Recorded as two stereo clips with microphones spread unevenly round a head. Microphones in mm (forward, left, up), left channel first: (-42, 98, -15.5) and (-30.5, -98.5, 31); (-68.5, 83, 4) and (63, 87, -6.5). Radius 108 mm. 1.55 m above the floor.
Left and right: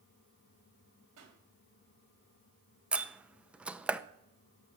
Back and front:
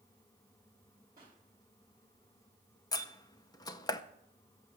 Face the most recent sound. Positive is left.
turn(degrees=-145)